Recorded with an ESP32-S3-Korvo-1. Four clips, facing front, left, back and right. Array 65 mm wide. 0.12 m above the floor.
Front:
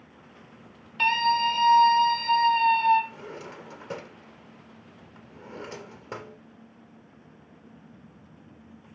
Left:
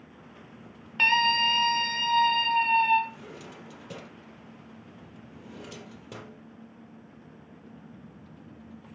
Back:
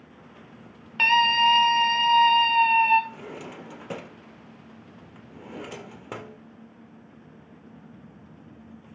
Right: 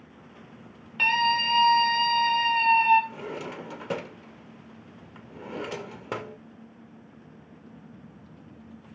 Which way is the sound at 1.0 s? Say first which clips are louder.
Even, back 3 dB; 160° left.